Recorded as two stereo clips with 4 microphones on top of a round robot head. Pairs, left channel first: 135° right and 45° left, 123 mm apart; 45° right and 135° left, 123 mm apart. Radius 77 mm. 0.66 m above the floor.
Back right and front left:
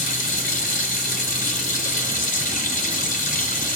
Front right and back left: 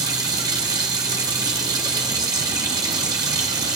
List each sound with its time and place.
0.0 s running water: 160° right, 1.2 m